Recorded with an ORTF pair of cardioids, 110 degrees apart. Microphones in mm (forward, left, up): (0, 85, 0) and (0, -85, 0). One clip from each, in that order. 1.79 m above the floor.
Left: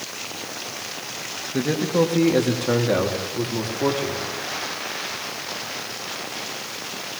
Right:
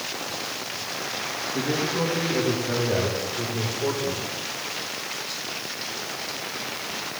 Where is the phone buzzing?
No phone buzzing in this recording.